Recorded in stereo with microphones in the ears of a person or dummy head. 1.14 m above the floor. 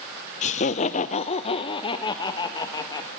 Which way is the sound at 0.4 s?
40° left (ahead or behind).